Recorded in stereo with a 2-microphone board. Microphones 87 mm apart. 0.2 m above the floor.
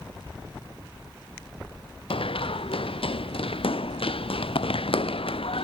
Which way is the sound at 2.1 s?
80° left.